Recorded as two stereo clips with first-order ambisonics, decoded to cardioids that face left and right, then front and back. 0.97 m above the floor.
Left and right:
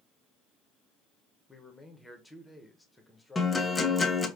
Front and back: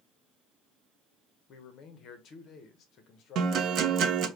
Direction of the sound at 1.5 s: 10° left.